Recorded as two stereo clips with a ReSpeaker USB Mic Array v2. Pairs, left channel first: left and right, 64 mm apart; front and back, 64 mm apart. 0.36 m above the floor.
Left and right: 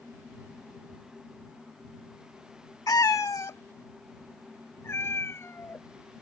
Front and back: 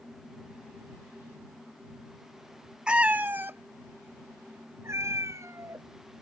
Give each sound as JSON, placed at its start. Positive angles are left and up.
{"t": 2.9, "sound": "a cat meowing", "azimuth_deg": 105}